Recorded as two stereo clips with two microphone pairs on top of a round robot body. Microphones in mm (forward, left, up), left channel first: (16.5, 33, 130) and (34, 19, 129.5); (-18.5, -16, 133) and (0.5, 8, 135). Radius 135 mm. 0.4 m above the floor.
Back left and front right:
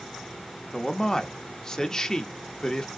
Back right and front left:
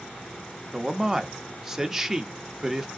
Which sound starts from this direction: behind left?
A man speaking, at 0.7 s.